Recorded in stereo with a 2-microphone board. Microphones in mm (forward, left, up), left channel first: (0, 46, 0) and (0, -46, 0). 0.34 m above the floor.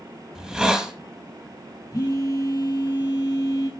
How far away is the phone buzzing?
About 3.5 m.